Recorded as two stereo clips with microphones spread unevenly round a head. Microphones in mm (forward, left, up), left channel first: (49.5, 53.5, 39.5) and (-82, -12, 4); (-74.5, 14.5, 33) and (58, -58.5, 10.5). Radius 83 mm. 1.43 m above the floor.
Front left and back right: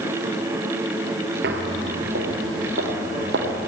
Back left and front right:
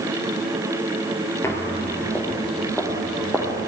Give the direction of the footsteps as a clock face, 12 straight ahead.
5 o'clock.